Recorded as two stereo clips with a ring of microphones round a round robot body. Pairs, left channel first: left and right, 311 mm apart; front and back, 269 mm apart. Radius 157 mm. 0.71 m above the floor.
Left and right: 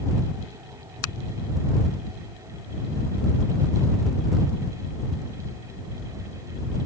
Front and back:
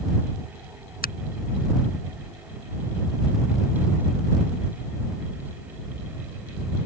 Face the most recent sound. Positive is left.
turn(degrees=55)